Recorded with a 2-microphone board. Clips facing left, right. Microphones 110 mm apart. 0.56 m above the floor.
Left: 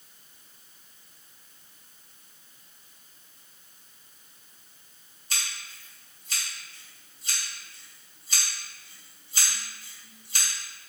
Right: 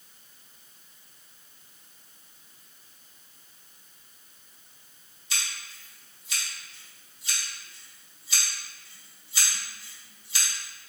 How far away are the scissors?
About 1.4 m.